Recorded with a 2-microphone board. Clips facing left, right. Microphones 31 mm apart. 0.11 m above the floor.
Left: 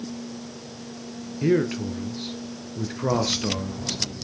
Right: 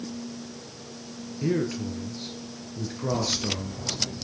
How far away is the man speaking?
About 2 m.